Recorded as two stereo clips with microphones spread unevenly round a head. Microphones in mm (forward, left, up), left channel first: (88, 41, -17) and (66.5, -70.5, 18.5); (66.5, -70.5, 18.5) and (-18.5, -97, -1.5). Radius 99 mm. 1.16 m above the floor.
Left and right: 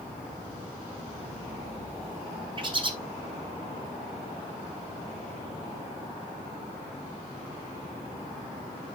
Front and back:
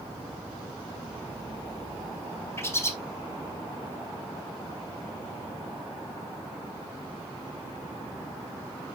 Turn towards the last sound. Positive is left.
turn(degrees=-50)